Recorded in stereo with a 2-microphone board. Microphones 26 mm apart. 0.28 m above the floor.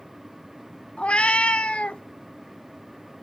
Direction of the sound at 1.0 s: 45° left (ahead or behind).